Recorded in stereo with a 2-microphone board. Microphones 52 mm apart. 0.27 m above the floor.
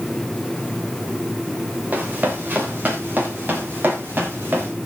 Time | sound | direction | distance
1.9 | running footsteps | 35° right (ahead or behind) | 4 m